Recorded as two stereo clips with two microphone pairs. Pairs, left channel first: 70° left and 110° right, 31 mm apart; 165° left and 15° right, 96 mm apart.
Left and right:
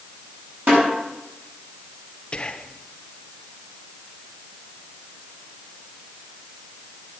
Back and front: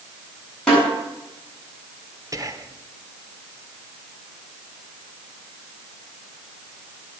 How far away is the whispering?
About 0.9 m.